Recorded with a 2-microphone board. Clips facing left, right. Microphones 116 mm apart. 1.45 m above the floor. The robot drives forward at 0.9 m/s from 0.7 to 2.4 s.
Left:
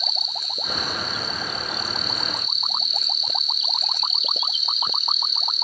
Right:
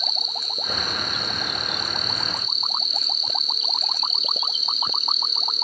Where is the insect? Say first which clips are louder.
Even; 50° right (ahead or behind), 1.1 m; by 5.7 s 45° right (ahead or behind), 1.3 m.